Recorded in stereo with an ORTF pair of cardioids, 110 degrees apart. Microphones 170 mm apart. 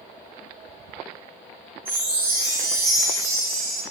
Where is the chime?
60° right, 1.4 m.